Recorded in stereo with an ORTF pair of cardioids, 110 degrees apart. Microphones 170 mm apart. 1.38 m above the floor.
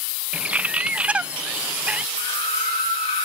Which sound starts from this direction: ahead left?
A scream, at 2.2 s.